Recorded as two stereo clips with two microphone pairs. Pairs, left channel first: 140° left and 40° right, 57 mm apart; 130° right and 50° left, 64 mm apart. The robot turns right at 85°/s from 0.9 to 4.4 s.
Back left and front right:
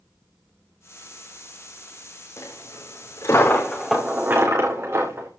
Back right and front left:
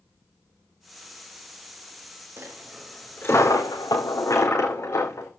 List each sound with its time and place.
2.4 s a dropped coin: 105° left, 4 m; by 5.3 s 85° right, 4 m